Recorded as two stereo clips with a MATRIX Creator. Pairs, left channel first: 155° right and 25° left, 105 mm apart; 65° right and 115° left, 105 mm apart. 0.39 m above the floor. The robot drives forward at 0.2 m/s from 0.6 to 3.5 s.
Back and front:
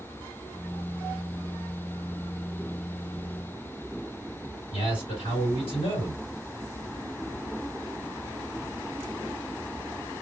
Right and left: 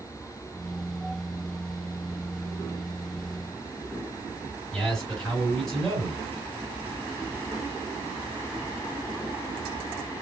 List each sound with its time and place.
4.7 s a man speaking: 150° right, 2.5 m